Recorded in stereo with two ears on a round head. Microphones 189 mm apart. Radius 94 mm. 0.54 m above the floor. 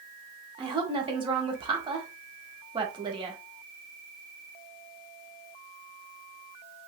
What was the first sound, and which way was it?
A woman speaking, 25° right (ahead or behind).